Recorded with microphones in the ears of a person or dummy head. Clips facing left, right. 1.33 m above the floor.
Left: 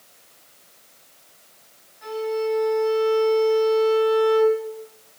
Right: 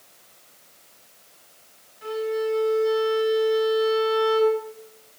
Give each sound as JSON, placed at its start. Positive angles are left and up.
{"t": 2.0, "sound": "a violin", "side_deg": -45, "distance_m": 5.0}